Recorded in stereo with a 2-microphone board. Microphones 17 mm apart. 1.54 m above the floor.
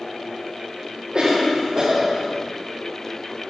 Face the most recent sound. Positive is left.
turn(degrees=-50)  # may be behind; listen again after turning